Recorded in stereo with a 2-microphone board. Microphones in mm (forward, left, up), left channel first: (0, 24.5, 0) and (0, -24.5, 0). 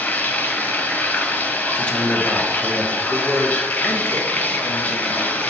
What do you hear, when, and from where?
0.0 s running water: 40° left (ahead or behind), 1.1 m
1.8 s a man speaking: 25° left (ahead or behind), 1.4 m
3.1 s a man speaking: 50° left (ahead or behind), 1.9 m